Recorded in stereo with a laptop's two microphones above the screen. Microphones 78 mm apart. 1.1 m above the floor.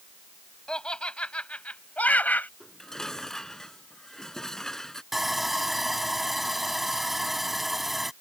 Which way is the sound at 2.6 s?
5° left (ahead or behind).